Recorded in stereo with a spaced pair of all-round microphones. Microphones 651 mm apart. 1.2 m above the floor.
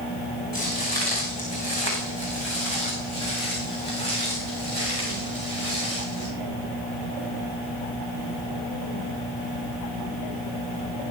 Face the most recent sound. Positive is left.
turn(degrees=60)  # may be behind; listen again after turning